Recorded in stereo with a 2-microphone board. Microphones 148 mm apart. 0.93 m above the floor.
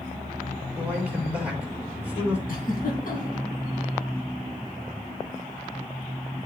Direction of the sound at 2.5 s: 65° left (ahead or behind).